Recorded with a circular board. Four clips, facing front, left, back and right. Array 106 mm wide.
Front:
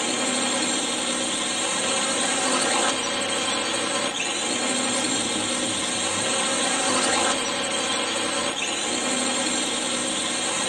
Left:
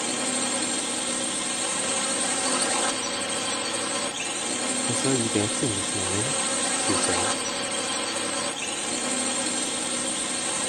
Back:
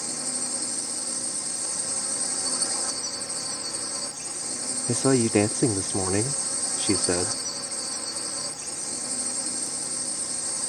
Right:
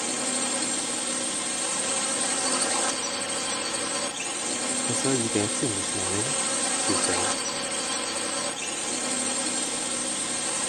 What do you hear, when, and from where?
0.0 s a drone: 5° left
4.9 s a man speaking: straight behind